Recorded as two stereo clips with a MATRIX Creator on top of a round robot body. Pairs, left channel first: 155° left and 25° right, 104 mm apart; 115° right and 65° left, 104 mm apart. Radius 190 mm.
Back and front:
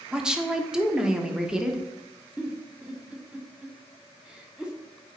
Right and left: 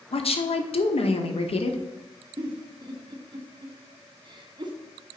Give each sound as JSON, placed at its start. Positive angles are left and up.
{"t": 0.1, "sound": "a woman speaking", "azimuth_deg": -105, "distance_m": 1.3}
{"t": 2.4, "sound": "a giggle", "azimuth_deg": 55, "distance_m": 1.6}